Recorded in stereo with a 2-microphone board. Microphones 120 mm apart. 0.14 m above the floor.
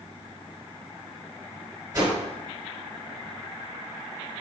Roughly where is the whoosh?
Right.